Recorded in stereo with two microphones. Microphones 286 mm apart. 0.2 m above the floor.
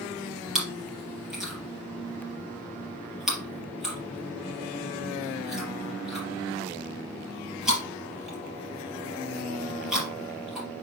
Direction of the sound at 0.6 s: Centre (ahead or behind).